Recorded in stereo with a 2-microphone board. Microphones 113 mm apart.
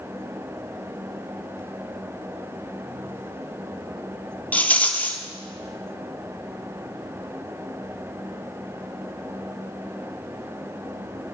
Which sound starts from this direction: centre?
A rattle, at 4.5 s.